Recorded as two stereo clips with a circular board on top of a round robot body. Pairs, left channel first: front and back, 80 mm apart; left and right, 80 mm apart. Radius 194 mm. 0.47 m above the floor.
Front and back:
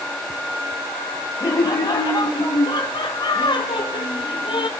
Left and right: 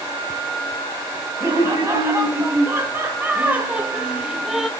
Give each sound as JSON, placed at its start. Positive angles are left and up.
{"t": 1.4, "sound": "laughter", "azimuth_deg": -40, "distance_m": 3.5}